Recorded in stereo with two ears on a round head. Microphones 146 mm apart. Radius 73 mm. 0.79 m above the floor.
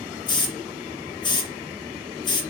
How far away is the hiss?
About 0.9 m.